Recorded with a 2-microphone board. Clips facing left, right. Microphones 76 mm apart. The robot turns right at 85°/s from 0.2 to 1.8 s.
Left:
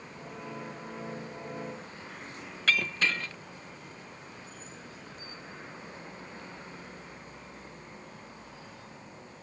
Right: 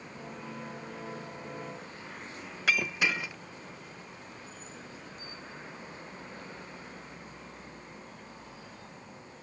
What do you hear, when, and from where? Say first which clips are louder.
2.7 s breaking glass: even; 10° right (ahead or behind)